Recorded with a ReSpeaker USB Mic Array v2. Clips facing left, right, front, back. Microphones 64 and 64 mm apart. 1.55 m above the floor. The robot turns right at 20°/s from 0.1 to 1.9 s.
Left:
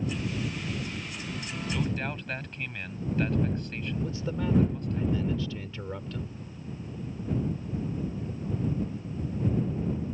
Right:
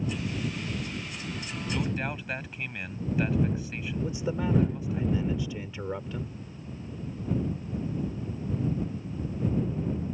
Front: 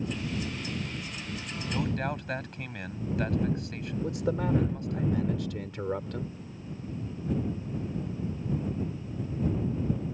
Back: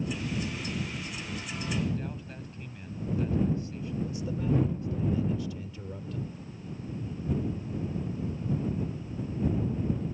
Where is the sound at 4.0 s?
15° right.